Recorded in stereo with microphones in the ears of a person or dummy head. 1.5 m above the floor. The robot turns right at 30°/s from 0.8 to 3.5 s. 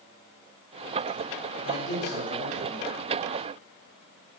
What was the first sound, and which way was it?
A man speaking, 80° left.